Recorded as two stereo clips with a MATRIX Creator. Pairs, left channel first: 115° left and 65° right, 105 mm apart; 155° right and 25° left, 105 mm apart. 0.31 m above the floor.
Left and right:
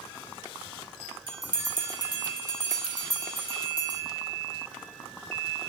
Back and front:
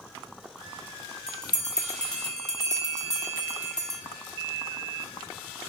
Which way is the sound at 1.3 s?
75° right.